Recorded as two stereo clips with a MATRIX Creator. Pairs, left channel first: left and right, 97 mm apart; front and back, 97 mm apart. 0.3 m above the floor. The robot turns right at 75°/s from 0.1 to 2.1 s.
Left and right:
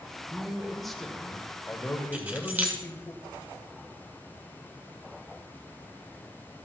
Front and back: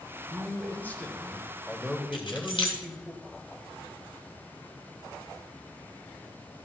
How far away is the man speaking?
About 1.1 m.